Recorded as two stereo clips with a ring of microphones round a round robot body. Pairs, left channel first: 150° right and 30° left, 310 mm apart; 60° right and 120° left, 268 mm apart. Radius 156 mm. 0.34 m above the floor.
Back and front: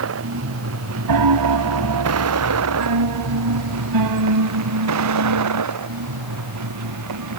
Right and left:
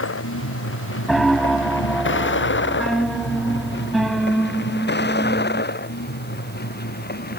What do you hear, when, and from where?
0.0 s a vehicle: 20° right; by 7.4 s 5° right
1.1 s a piano: 30° left